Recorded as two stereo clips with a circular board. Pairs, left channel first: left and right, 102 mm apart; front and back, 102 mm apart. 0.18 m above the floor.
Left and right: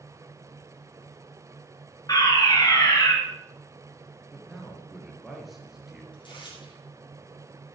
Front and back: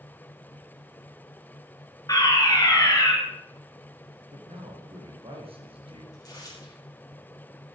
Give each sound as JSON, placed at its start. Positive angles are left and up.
{"t": 2.1, "sound": "a fire alarm", "azimuth_deg": 45, "distance_m": 4.0}
{"t": 4.3, "sound": "a man speaking", "azimuth_deg": -175, "distance_m": 3.5}
{"t": 6.1, "sound": "tearing paper", "azimuth_deg": 50, "distance_m": 4.5}